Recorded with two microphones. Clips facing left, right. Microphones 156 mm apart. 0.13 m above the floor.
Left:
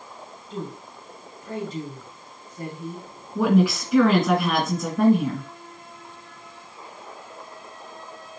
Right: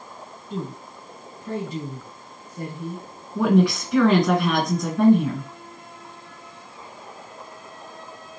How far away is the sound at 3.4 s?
About 1.7 m.